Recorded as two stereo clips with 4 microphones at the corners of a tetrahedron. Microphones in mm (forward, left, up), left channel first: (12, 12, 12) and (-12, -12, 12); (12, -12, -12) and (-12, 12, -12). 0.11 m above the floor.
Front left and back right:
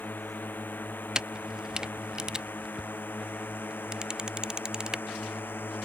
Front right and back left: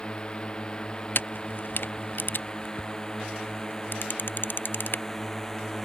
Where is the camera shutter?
65° right.